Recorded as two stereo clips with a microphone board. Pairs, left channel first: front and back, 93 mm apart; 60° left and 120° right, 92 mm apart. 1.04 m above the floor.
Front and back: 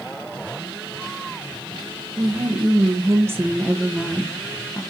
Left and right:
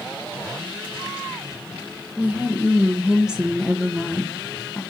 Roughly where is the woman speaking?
Behind.